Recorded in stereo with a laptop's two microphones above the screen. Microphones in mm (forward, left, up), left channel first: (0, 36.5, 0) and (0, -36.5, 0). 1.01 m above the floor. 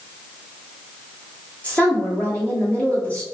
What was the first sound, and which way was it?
A woman speaking, 20° left (ahead or behind).